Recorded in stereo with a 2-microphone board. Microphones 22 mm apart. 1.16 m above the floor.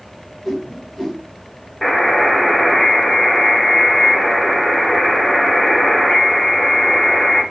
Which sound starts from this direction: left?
A buzzer, at 1.8 s.